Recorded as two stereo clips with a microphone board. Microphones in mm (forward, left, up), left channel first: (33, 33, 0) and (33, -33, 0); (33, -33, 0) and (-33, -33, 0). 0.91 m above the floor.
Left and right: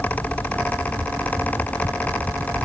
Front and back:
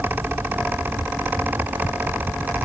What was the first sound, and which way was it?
Only background noise.